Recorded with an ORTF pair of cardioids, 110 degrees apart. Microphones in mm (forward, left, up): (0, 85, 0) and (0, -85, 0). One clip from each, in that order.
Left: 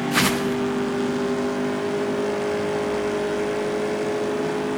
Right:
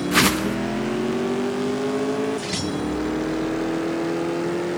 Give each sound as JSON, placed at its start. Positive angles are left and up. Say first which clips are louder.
{"t": 0.1, "sound": "a whoosh", "louder": "right 2 dB", "azimuth_deg": -15, "distance_m": 1.1}